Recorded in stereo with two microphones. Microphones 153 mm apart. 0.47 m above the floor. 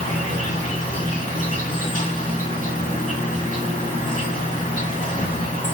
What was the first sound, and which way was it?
An insect, 60° left (ahead or behind).